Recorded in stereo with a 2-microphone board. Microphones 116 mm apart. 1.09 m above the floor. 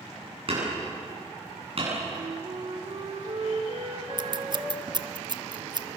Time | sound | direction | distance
0.5 | hammering | 50° right (ahead or behind) | 8.5 m
2.1 | a flute | 60° right (ahead or behind) | 3.5 m
4.2 | scissors | 35° right (ahead or behind) | 0.6 m